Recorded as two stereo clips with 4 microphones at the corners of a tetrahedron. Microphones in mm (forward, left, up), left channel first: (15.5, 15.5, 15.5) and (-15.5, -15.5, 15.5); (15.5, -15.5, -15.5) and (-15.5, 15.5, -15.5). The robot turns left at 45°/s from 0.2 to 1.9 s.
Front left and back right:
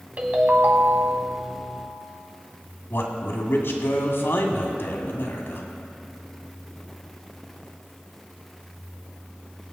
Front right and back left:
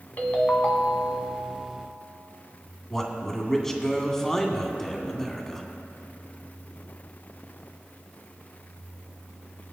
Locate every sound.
0.2 s a ringtone: 85° right, 1.6 m; by 1.4 s 140° right, 1.6 m
2.9 s a man speaking: 30° left, 1.9 m